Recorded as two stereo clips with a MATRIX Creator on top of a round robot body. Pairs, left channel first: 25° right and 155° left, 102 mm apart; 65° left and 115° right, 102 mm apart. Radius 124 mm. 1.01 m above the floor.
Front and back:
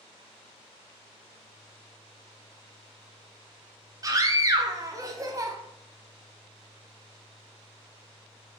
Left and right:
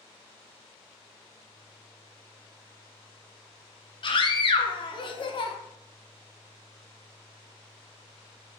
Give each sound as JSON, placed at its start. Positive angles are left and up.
{"t": 4.0, "sound": "a scream", "azimuth_deg": 100, "distance_m": 0.9}